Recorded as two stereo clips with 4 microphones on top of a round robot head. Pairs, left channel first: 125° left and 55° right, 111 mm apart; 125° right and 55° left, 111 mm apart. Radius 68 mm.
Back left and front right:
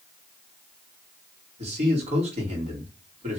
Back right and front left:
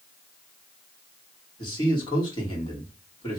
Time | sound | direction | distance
1.6 | a man speaking | 75° right | 2.5 m